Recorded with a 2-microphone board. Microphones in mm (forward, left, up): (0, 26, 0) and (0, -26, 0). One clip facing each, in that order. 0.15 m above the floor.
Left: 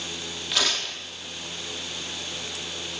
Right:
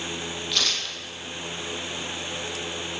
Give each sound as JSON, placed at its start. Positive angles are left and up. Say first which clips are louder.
{"t": 0.5, "sound": "tearing paper", "louder": "left 3 dB", "side_deg": 10, "distance_m": 3.5}